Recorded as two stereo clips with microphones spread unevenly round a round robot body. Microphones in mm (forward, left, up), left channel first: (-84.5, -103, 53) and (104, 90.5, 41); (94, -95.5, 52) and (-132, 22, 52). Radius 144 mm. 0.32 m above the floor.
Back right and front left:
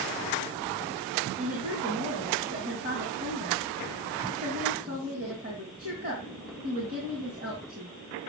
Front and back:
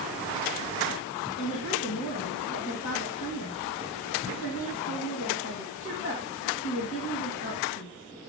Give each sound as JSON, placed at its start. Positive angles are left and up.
{"t": 1.4, "sound": "a woman speaking", "azimuth_deg": -10, "distance_m": 2.5}